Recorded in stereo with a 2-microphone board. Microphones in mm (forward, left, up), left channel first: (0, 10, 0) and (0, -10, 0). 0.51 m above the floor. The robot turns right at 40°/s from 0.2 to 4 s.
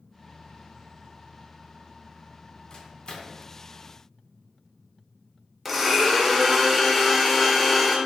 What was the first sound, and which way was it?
A microwave, 45° left (ahead or behind).